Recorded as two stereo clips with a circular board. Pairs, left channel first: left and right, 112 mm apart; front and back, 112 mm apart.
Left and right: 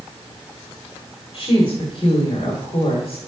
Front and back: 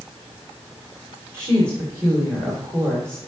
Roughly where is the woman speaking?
Behind left.